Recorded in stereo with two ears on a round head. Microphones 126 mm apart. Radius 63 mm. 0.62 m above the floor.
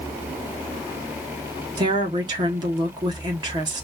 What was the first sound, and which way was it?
A woman speaking, 30° right (ahead or behind).